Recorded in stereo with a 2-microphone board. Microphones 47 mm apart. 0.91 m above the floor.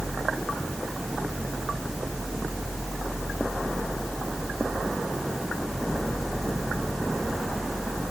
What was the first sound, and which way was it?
Only background noise.